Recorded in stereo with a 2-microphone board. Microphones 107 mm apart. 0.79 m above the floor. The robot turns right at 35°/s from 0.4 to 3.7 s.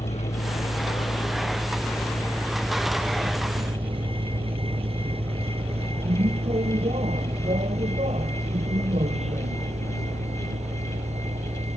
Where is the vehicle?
75° left (ahead or behind); by 11.8 s 85° right.